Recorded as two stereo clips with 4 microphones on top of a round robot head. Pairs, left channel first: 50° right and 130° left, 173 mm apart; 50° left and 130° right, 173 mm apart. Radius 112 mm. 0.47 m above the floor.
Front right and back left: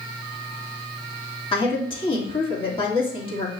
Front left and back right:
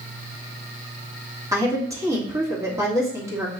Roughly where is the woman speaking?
Right.